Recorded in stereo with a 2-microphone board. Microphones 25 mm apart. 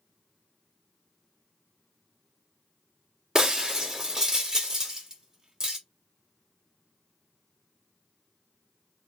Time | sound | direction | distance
3.4 | breaking glass | 25° right (ahead or behind) | 0.9 m